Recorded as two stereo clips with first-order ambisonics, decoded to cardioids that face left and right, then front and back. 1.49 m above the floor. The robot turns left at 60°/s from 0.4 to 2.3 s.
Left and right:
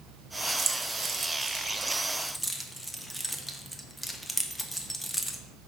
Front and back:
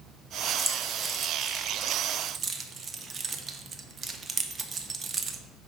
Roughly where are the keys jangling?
Right.